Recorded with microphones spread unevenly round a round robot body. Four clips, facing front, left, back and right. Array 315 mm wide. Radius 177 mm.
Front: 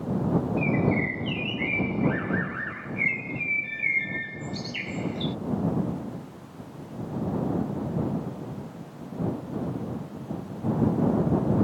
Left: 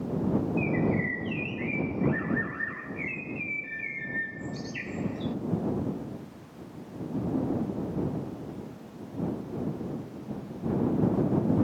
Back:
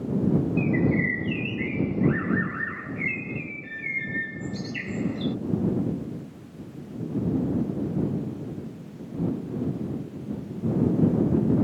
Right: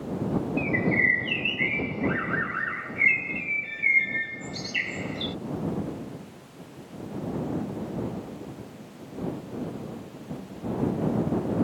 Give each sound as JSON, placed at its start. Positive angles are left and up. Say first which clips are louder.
{"t": 0.6, "sound": "a bird", "louder": "right 1 dB, back 1 dB", "azimuth_deg": 175}